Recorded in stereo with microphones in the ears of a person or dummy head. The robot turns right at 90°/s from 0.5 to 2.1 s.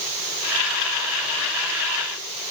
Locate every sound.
Only background noise.